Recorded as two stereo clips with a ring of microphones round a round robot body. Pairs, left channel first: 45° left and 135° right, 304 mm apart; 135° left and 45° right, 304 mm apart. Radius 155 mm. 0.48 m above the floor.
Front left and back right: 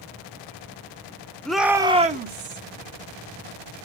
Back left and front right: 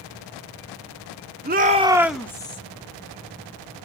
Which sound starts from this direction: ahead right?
A shout, at 1.4 s.